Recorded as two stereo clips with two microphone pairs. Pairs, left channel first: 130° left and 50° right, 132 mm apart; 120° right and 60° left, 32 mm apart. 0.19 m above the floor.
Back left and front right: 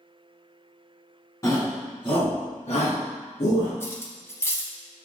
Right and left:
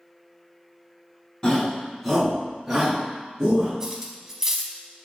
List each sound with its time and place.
1.4 s a shout: straight behind, 1.6 m; by 3.7 s 120° left, 2.5 m
3.8 s cutlery clinking: 100° left, 0.6 m